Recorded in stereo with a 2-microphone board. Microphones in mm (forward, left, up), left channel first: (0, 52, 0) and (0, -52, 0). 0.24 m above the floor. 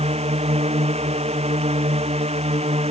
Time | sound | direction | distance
0.0 | a drone | 80° right | ?